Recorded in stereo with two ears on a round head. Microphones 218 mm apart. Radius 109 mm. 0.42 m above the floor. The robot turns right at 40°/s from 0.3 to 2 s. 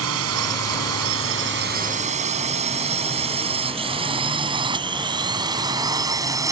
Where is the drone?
65° right (ahead or behind); by 6.5 s 15° right (ahead or behind).